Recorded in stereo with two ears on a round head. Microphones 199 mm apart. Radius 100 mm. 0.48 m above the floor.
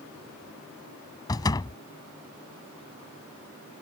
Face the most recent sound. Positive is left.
turn(degrees=20)  # may be behind; listen again after turning